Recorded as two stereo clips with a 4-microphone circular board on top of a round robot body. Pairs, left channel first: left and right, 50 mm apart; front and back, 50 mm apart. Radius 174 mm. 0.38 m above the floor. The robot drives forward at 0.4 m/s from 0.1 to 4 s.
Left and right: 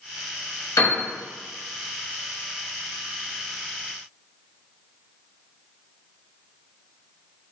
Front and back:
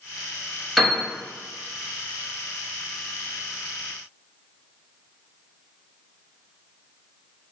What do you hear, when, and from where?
0.8 s a piano: 90° left, 1.3 m; by 1.0 s 95° left, 1.3 m